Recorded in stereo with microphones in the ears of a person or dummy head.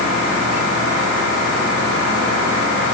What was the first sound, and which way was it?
Only background noise.